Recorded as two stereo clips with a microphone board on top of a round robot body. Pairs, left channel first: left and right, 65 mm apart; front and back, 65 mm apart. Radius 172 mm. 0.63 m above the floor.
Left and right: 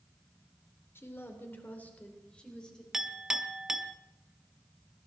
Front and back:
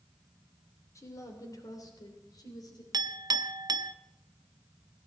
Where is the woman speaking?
40° left, 3 m; by 2.8 s 10° left, 4 m.